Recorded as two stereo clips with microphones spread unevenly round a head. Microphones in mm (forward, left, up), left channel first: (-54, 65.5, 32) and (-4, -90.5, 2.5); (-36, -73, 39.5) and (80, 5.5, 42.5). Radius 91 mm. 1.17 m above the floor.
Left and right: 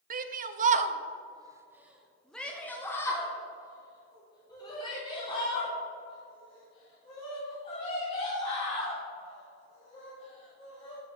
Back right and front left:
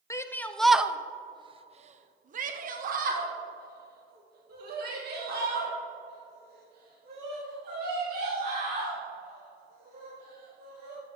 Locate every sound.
0.1 s a shout: 80° right, 0.8 m; by 11.0 s 50° left, 5 m